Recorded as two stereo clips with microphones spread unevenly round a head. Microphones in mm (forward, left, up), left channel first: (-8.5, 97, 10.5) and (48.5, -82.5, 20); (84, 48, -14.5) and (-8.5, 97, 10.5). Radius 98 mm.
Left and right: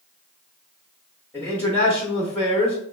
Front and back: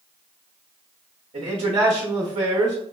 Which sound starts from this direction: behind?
A man speaking, at 1.3 s.